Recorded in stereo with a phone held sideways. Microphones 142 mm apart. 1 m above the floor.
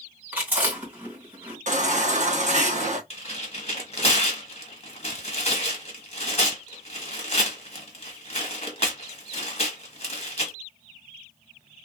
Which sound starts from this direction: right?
A baby crying, at 1.7 s.